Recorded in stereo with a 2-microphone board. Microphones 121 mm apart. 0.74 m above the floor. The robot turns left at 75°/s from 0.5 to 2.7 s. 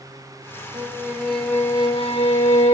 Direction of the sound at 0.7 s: 135° right.